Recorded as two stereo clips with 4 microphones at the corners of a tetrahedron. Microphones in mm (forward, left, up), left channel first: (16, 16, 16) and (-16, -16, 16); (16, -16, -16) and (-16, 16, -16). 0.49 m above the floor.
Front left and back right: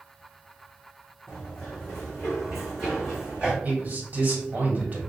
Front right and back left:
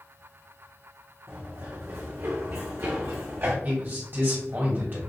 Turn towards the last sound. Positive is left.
turn(degrees=170)